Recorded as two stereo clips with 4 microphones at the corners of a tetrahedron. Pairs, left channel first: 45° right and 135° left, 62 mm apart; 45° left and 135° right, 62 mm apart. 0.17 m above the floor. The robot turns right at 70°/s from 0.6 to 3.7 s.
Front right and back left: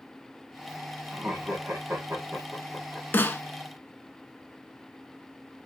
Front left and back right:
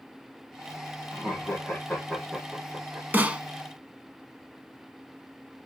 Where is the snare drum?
85° right, 0.6 m; by 3.4 s 65° right, 0.6 m.